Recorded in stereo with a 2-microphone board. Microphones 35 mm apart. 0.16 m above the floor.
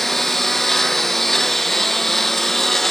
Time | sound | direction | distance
0.0 | a lawn mower | 5° left (ahead or behind) | ?